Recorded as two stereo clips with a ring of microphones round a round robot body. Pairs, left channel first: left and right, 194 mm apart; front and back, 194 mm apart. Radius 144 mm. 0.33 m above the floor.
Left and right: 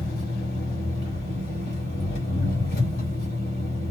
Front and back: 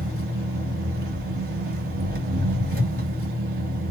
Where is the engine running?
150° left, 2 m.